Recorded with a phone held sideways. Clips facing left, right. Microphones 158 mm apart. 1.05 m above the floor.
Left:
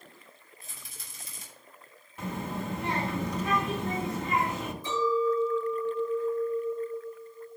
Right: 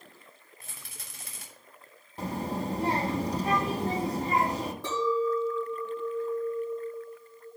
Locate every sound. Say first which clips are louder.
0.6 s a rattle: right 3 dB; 80° right, 3.5 m
2.2 s a child speaking: right 3 dB; 35° right (ahead or behind), 1.4 m
4.8 s a clink: left 1 dB; 85° right, 6.5 m